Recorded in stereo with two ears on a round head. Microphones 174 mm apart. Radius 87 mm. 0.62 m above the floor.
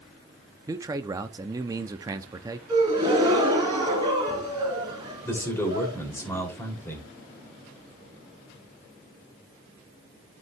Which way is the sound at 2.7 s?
20° right (ahead or behind).